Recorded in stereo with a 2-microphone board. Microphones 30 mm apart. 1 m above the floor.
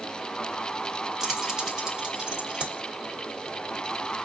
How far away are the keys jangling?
About 0.8 m.